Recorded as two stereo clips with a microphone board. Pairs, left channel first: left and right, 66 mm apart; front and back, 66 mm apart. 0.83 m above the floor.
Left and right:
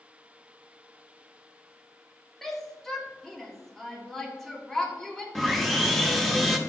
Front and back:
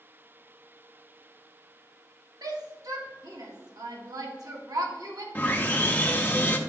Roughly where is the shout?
Behind.